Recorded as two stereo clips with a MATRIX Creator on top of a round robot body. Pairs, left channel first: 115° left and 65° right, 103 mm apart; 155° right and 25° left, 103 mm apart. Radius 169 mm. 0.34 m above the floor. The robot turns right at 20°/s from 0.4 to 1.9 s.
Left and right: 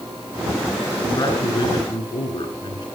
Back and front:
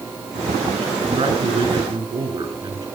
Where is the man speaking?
55° left, 6.5 m; by 2.9 s 70° left, 6.5 m.